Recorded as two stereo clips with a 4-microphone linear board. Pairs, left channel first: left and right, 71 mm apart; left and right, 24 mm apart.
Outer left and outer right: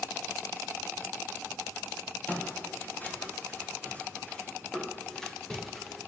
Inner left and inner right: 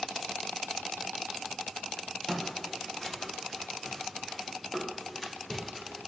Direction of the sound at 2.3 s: 25° left (ahead or behind).